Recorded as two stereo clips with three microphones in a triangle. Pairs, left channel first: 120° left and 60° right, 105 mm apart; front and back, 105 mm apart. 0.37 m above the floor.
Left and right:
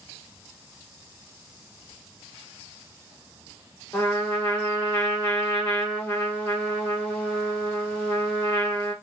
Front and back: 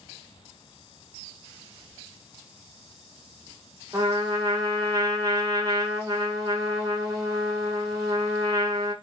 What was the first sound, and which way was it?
A trumpet, 175° left.